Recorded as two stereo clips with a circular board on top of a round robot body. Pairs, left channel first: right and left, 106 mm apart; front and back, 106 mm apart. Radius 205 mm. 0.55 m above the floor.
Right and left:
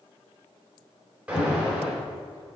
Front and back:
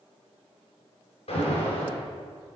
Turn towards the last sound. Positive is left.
turn(degrees=10)